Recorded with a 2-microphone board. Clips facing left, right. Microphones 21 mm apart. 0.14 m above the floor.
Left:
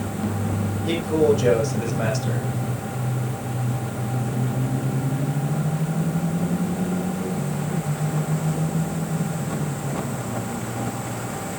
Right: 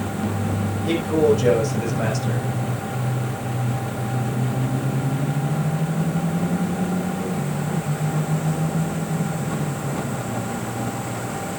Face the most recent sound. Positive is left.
turn(degrees=0)  # may be behind; listen again after turning